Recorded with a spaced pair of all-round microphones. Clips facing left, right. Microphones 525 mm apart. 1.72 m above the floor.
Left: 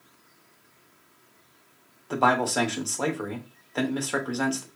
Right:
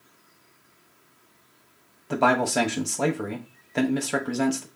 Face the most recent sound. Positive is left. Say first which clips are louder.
# right 2 dB
turn(degrees=-45)  # may be behind; listen again after turning